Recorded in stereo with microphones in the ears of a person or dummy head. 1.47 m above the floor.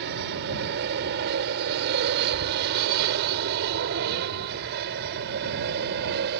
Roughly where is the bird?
No bird in this recording.